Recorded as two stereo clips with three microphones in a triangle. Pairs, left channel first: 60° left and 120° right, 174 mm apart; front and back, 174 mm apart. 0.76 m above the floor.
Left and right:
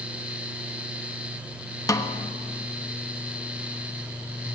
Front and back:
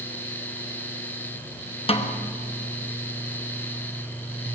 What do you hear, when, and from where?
1.9 s a snare drum: 5° left, 0.9 m